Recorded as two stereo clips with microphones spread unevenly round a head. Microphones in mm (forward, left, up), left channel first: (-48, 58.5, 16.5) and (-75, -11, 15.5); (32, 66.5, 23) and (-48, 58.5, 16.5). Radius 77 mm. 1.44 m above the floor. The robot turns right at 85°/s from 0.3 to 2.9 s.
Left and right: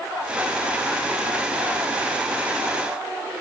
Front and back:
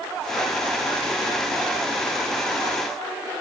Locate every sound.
Only background noise.